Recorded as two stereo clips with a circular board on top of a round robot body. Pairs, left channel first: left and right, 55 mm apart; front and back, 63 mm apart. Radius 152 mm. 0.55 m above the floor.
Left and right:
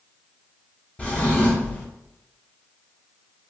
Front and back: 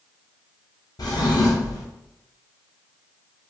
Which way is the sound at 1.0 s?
20° left.